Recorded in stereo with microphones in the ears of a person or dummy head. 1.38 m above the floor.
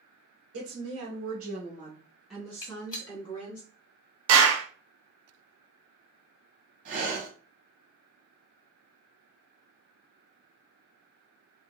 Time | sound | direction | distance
0.5 | a woman speaking | 70° right (ahead or behind) | 1.1 m
2.6 | a gunshot | 20° left (ahead or behind) | 1.6 m
4.3 | a clap | 80° right | 0.9 m
6.8 | breathing | 50° right (ahead or behind) | 1.7 m